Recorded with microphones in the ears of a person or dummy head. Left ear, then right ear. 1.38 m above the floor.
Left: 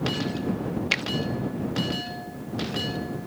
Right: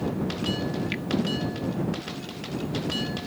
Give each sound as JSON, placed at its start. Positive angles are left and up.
{"t": 0.9, "sound": "a finger snap", "side_deg": 45}